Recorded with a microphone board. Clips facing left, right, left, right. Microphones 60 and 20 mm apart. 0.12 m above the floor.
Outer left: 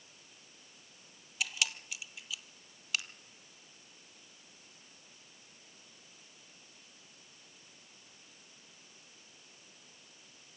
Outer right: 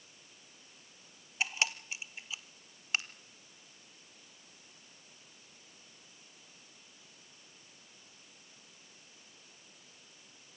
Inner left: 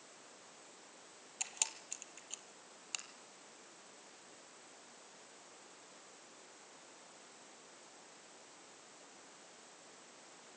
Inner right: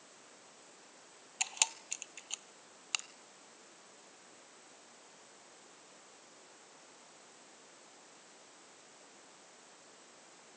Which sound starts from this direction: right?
A camera shutter, at 1.4 s.